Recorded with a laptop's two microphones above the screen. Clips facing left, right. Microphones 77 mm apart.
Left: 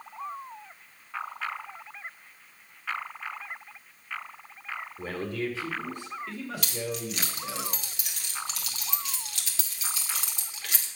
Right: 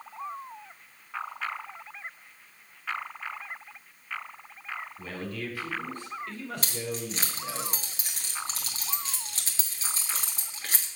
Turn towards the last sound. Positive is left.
turn(degrees=-35)  # may be behind; listen again after turning